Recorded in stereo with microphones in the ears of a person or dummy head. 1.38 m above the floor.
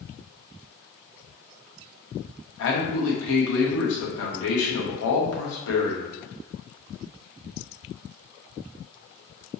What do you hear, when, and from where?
2.6 s a man speaking: 80° left, 1.1 m